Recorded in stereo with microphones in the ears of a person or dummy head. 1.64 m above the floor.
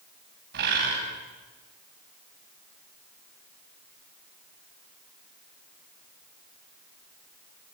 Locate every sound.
0.5 s a bird: 60° right (ahead or behind), 5.5 m